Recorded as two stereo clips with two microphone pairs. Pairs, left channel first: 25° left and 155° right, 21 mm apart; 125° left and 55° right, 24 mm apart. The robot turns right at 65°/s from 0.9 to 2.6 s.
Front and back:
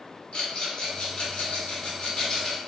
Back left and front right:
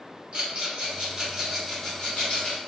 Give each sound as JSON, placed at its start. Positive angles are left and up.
{"t": 0.3, "sound": "a rattle", "azimuth_deg": -15, "distance_m": 1.1}